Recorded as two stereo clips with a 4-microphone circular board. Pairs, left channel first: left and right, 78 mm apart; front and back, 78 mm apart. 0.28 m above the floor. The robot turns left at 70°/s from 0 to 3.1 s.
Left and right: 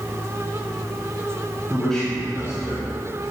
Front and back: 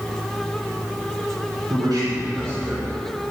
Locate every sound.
1.7 s a man speaking: 170° right, 3.5 m; by 3.3 s 90° left, 3.5 m